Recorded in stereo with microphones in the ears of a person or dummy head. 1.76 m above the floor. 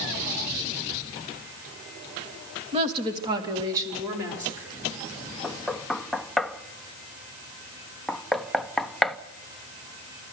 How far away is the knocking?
About 0.8 m.